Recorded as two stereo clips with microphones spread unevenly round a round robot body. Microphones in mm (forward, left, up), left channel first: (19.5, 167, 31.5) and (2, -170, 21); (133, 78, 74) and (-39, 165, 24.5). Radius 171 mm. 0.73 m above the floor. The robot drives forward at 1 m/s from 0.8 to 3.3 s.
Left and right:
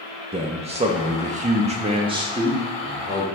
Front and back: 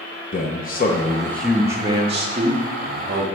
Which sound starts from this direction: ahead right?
A man speaking, at 0.3 s.